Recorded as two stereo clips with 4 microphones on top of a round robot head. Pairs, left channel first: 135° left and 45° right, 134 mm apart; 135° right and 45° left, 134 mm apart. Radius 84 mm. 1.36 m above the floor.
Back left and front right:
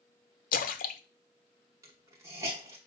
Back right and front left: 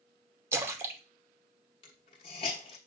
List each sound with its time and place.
0.5 s a splash: 115° left, 0.9 m
1.8 s a hiss: 105° right, 1.1 m